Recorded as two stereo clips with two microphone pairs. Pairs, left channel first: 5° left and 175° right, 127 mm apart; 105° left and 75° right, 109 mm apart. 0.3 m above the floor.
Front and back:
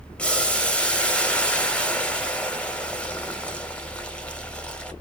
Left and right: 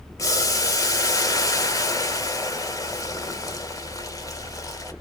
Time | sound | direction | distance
0.2 | boiling | 80° left | 0.5 m